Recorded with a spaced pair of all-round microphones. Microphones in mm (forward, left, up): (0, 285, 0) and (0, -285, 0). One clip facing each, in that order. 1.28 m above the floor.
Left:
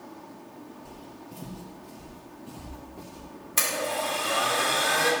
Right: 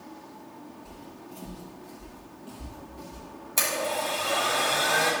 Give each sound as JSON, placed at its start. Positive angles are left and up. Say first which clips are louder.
{"t": 0.8, "sound": "footsteps", "louder": "even", "side_deg": 25, "distance_m": 1.8}
{"t": 3.6, "sound": "a blender", "louder": "even", "side_deg": 40, "distance_m": 2.5}